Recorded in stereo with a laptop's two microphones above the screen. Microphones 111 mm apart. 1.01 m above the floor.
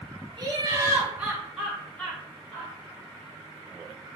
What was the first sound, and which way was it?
Laughter, 40° right (ahead or behind).